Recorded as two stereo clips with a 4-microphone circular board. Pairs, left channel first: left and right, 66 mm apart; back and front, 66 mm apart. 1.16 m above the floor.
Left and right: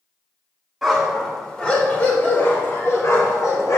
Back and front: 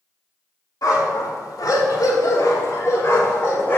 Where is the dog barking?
175° left, 1.9 m; by 3.8 s 125° left, 2.5 m.